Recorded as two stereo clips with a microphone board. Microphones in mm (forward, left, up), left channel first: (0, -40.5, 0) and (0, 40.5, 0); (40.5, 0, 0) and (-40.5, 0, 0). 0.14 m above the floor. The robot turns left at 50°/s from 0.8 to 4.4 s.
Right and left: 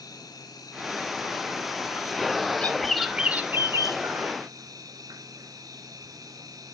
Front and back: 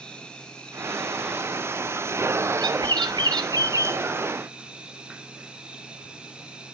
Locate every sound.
0.0 s an insect: 75° right, 1.1 m; by 6.7 s 105° left, 1.1 m
2.6 s a bird: 165° right, 0.7 m; by 4.0 s 125° left, 0.7 m